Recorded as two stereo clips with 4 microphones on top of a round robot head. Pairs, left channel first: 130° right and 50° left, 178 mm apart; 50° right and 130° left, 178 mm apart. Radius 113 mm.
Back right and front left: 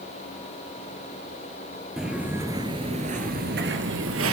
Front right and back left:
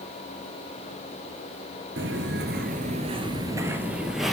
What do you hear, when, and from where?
2.0 s footsteps: 135° left, 1.6 m; by 4.3 s 40° left, 2.0 m